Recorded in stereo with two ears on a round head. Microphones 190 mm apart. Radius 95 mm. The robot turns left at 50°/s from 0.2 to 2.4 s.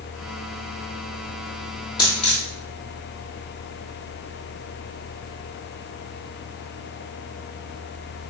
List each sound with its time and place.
2.0 s a dropped coin: 20° left (ahead or behind), 2.0 m; by 2.5 s 30° left (ahead or behind), 2.0 m